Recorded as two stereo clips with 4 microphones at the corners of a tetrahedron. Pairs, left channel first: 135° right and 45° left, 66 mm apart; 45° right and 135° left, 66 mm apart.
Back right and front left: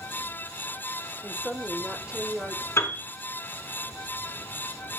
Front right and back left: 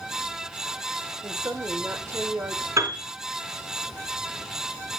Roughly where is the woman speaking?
Behind left.